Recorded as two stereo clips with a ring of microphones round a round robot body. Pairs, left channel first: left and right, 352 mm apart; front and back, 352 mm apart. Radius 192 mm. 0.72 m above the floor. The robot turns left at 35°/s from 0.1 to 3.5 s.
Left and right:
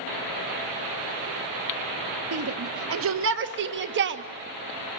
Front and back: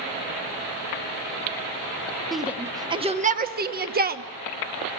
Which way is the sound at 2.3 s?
90° right.